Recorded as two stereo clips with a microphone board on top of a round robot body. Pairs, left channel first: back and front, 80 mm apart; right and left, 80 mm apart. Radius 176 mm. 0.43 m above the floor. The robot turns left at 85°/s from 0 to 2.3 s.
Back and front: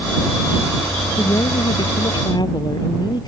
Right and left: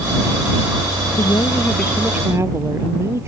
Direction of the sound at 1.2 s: 115° right.